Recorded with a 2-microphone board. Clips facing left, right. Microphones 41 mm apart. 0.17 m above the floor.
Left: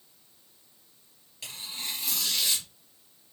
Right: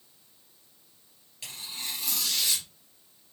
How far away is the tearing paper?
About 2.5 m.